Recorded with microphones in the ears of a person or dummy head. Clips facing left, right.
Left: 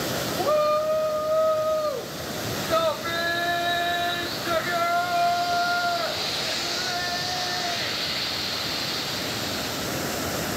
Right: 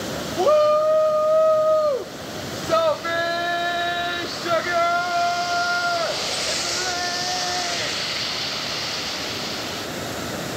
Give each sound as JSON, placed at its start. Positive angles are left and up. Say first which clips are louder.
{"t": 0.4, "sound": "a shout", "louder": "right 6 dB", "side_deg": -50, "distance_m": 1.0}